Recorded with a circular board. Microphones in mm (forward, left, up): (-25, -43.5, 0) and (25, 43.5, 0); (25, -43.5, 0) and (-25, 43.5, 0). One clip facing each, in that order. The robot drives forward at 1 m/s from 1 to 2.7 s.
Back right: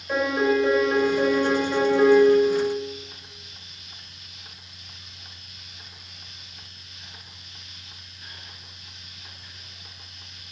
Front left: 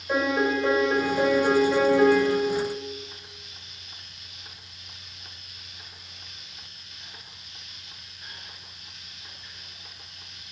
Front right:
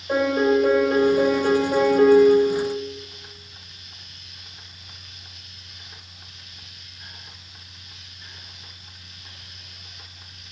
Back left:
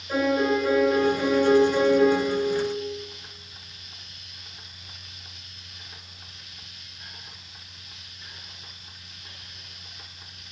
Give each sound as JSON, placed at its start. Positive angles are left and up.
{"t": 0.1, "sound": "a piano", "azimuth_deg": -20, "distance_m": 3.0}